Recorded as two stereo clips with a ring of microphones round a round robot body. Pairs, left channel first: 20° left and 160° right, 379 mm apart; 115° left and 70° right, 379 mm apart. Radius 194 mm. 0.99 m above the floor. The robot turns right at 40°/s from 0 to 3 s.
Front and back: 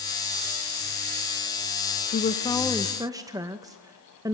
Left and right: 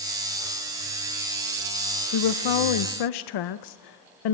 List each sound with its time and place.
2.1 s a woman speaking: 85° left, 0.6 m; by 4.4 s 120° left, 0.6 m